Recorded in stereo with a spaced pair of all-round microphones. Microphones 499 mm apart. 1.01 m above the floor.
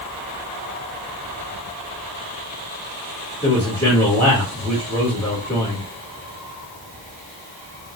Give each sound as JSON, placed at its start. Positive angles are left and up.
{"t": 3.4, "sound": "a man speaking", "side_deg": 10, "distance_m": 1.0}